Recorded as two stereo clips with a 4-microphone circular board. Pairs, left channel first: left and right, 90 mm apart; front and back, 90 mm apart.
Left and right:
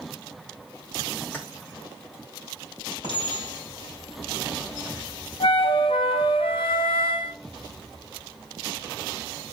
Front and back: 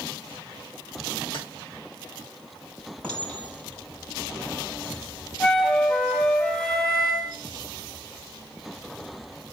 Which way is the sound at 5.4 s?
85° left.